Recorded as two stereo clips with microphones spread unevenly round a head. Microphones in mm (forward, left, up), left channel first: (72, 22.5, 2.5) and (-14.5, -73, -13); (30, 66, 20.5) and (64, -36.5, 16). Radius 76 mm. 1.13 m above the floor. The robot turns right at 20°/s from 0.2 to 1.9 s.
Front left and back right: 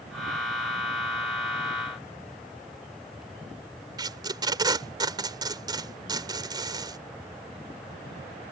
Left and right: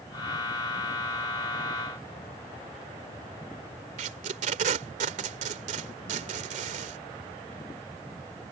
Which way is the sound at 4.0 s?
70° right.